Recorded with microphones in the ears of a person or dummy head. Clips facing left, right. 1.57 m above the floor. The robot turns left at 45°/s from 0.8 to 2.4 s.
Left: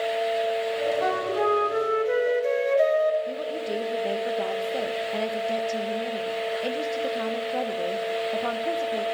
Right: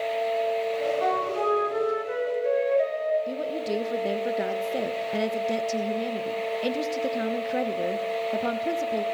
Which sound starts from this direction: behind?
A flute, at 1.0 s.